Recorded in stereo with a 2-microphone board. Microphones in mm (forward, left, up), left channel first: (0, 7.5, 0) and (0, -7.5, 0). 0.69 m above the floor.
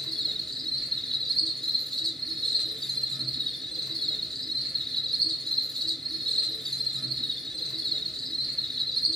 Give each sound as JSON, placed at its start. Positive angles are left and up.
{"t": 0.0, "sound": "an insect", "side_deg": 45, "distance_m": 1.3}